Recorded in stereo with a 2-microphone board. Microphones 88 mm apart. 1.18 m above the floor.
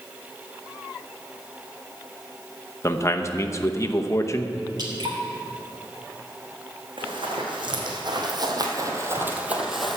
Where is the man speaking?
35° left (ahead or behind), 0.8 m.